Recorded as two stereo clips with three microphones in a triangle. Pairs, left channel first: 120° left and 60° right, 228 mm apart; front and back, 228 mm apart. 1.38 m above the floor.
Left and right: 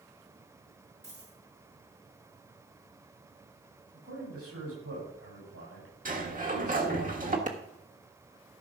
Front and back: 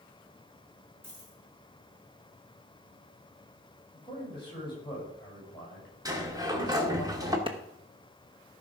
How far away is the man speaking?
About 8 m.